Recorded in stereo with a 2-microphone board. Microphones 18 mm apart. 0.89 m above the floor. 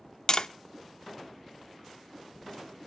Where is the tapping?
40° left (ahead or behind), 0.5 m.